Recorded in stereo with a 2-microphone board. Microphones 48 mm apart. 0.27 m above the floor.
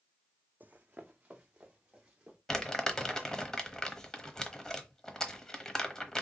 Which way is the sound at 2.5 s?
15° left (ahead or behind).